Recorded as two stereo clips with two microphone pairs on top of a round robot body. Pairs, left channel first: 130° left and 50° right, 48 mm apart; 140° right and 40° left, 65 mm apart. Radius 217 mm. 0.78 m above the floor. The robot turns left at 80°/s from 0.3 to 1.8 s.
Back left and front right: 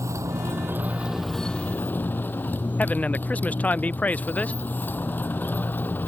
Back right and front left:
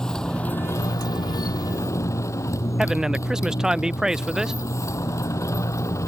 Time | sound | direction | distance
0.0 | a motorcycle | 60° right | ?
2.8 | a man speaking | 125° left | ?